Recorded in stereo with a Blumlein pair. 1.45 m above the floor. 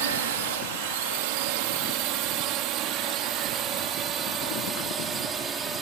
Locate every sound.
0.0 s a drone: 55° right; by 5.8 s 20° right